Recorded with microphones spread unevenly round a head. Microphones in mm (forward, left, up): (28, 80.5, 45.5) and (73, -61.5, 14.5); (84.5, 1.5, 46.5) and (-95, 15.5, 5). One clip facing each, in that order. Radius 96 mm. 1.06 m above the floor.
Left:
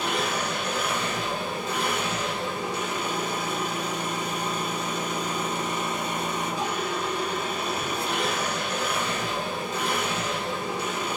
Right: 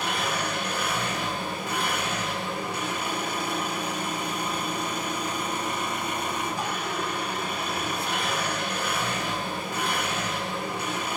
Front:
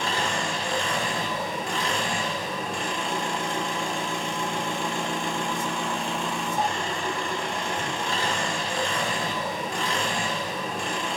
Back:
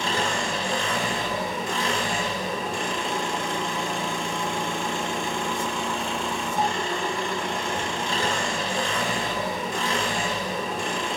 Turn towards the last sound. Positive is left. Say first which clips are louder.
# left 1 dB, back 2 dB
turn(degrees=180)